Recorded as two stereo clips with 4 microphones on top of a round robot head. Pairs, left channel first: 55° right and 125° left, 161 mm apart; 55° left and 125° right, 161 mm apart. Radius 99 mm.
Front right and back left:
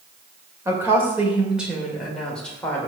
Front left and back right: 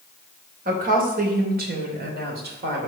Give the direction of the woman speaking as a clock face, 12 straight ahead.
5 o'clock.